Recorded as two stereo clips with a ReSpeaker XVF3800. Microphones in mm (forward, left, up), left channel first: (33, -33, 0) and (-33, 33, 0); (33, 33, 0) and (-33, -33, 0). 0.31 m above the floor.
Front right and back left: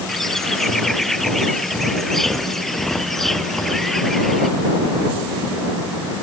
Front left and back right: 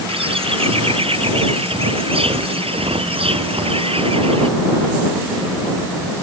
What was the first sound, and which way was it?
A bird, 130° right.